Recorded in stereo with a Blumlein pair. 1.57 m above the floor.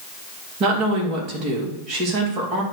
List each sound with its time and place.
0.6 s a woman speaking: 35° right, 3 m